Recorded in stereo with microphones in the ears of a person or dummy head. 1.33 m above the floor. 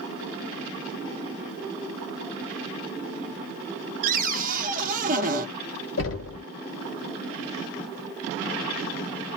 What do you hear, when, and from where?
4.0 s a cupboard door: 45° right (ahead or behind), 0.7 m
6.0 s knocking: 75° left (ahead or behind), 1.6 m